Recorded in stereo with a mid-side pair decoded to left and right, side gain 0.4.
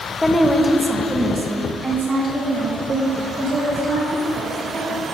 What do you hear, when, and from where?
0.2 s a woman speaking: 20° left, 1.3 m; by 5.0 s 60° right, 5.5 m